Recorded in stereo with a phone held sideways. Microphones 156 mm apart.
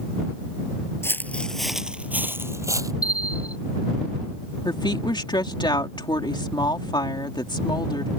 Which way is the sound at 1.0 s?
15° left (ahead or behind).